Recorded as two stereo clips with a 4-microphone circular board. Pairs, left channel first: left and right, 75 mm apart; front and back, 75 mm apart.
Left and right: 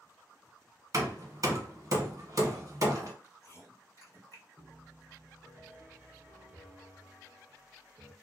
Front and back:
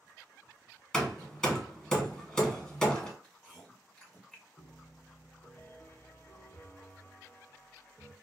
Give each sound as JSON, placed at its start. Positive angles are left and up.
{"t": 0.9, "sound": "hammering", "azimuth_deg": -80, "distance_m": 0.8}
{"t": 3.2, "sound": "chewing", "azimuth_deg": 85, "distance_m": 1.7}
{"t": 4.6, "sound": "a piano", "azimuth_deg": -50, "distance_m": 0.6}